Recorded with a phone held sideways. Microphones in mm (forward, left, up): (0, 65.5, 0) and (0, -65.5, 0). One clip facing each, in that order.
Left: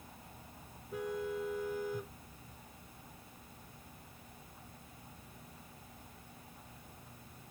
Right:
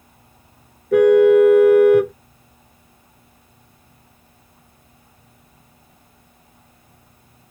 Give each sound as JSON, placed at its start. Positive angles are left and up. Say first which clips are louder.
{"t": 0.9, "sound": "a car horn", "louder": "right 28 dB", "side_deg": -85}